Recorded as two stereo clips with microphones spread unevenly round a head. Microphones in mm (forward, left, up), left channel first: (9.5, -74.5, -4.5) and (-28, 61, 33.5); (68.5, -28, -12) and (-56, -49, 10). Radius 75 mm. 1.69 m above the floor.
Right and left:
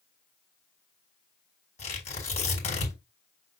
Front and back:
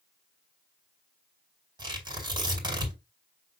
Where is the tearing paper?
120° right, 5 m.